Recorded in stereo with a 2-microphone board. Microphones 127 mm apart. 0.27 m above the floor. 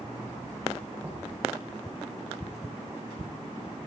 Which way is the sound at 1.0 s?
10° right (ahead or behind).